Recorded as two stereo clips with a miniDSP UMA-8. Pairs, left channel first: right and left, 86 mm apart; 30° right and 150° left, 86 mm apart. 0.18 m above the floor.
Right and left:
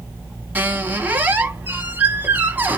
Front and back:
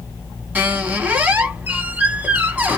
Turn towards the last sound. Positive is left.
turn(degrees=115)